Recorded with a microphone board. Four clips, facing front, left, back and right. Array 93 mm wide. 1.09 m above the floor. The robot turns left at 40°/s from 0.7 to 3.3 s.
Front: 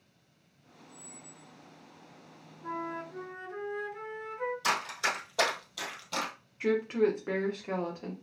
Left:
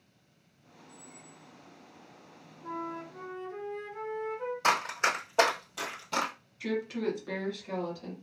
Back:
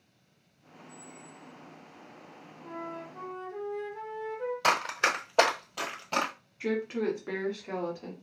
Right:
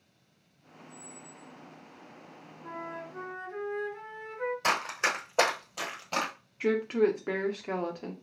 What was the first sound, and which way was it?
A squeak, 70° left.